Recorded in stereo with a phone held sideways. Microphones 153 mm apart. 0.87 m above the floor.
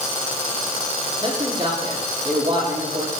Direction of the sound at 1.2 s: 30° right (ahead or behind).